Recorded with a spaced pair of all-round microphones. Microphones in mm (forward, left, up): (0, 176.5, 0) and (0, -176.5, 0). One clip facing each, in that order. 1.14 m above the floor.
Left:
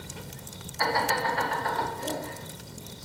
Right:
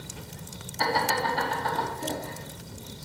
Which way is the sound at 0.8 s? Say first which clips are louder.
Right 1 dB; 45° right (ahead or behind).